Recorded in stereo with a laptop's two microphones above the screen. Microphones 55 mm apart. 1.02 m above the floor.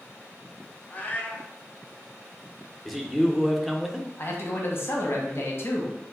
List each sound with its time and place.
0.9 s a cat meowing: 30° left (ahead or behind), 0.6 m
2.9 s a man speaking: centre (ahead or behind), 0.6 m
4.2 s a man speaking: 45° left (ahead or behind), 0.8 m